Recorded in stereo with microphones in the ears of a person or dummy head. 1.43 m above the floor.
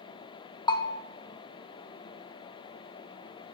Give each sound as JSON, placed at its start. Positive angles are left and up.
{"t": 0.7, "sound": "a bell", "side_deg": 20, "distance_m": 0.8}